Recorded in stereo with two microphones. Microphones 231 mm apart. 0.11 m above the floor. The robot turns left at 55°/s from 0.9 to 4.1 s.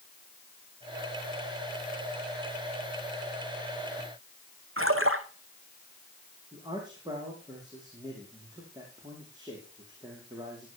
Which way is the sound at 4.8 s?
65° right (ahead or behind).